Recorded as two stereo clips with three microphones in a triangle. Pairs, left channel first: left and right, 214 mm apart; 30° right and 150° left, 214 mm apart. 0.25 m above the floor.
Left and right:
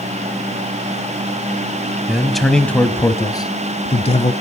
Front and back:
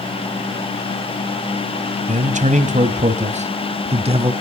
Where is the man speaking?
175° right, 1.6 m; by 4.3 s 110° left, 1.5 m.